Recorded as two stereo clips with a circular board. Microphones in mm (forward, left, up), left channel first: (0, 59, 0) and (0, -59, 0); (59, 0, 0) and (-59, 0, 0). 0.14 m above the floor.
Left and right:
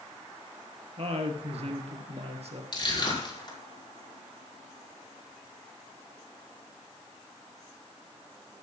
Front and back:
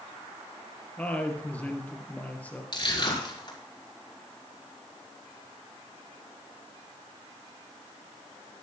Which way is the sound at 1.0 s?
75° right.